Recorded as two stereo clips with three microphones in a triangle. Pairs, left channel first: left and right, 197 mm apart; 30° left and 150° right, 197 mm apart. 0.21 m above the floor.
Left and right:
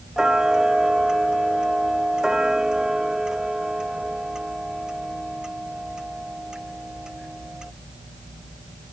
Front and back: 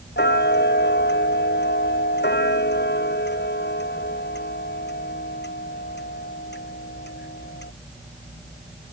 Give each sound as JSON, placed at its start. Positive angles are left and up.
{"t": 0.2, "sound": "ticking", "azimuth_deg": -5}